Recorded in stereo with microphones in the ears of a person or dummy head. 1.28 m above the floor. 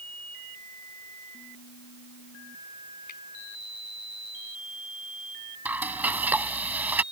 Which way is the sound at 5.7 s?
10° right (ahead or behind).